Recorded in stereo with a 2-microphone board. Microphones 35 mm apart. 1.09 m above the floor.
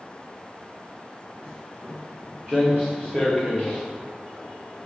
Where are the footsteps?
15° right (ahead or behind), 3.5 m; by 3.8 s 10° left (ahead or behind), 4 m.